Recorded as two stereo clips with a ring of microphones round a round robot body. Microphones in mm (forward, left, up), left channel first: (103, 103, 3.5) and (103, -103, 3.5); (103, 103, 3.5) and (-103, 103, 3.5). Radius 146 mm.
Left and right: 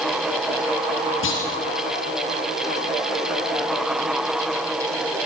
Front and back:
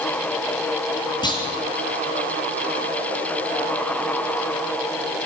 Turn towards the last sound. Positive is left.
turn(degrees=70)